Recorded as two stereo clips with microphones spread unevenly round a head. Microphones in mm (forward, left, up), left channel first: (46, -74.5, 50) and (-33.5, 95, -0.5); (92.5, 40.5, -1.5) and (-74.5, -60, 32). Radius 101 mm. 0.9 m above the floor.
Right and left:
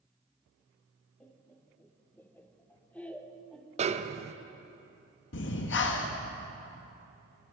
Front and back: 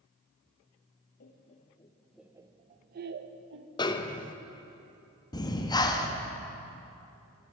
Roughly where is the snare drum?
Left.